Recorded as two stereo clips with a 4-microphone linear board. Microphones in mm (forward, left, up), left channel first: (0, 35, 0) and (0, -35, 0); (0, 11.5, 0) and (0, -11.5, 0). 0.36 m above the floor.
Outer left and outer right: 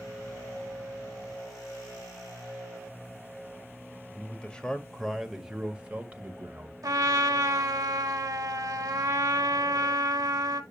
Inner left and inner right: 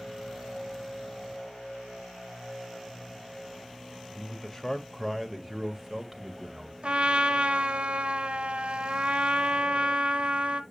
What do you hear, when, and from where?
4.1 s a man speaking: 20° left (ahead or behind), 1.6 m; by 6.7 s 30° right (ahead or behind), 1.8 m
6.8 s a trumpet: 60° right (ahead or behind), 1.2 m